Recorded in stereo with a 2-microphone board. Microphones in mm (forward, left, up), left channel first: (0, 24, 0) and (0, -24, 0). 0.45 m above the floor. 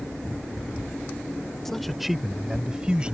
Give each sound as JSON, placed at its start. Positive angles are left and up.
{"t": 1.6, "sound": "a man speaking", "side_deg": 5}